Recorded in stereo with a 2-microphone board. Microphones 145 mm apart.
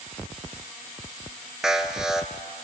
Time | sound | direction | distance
1.6 | an alarm | 5° right (ahead or behind) | 1.0 m